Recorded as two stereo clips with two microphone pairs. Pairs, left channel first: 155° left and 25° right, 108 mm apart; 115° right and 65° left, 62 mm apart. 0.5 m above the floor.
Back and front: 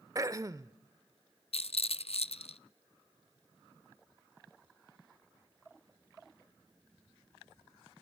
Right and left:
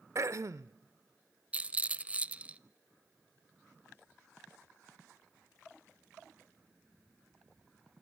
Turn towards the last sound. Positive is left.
turn(degrees=130)